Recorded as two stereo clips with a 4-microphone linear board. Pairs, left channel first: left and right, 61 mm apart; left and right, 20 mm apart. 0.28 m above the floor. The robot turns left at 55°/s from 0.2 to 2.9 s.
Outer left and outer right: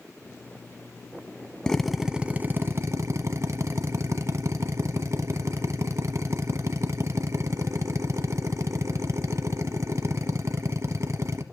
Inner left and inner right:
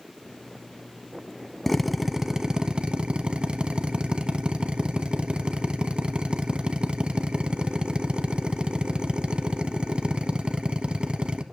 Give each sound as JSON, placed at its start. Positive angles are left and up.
{"t": 1.7, "sound": "a drill", "azimuth_deg": 15, "distance_m": 0.8}